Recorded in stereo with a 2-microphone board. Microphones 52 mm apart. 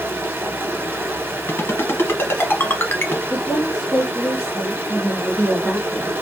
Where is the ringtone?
55° left (ahead or behind), 1.3 m.